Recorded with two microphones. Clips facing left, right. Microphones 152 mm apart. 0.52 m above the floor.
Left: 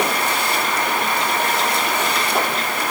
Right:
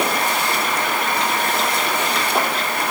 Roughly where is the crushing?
No crushing in this recording.